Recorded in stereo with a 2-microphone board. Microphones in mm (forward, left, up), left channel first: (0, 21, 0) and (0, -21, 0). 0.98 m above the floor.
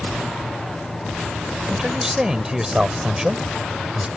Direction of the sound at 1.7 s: 15° right (ahead or behind).